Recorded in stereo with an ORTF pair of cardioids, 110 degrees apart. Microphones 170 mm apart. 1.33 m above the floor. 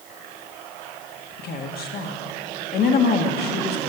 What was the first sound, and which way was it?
A woman speaking, 60° left.